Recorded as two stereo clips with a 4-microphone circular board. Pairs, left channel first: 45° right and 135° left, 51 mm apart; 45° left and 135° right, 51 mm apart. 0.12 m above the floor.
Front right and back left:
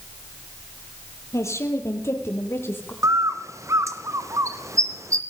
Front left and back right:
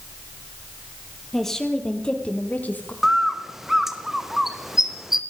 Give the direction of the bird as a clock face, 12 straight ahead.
7 o'clock.